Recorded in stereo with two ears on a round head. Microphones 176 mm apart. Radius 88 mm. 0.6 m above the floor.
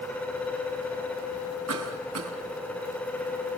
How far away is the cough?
About 4.5 m.